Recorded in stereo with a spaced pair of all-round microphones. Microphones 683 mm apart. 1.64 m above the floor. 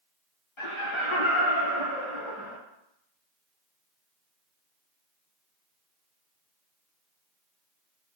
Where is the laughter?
45° left (ahead or behind), 0.7 m.